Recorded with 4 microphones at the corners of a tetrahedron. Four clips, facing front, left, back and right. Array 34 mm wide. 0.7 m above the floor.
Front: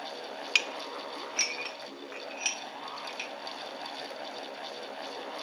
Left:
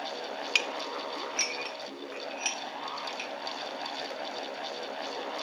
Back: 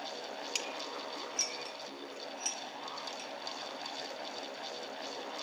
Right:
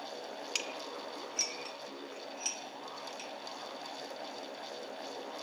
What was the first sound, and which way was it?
Dishes clattering, 40° left.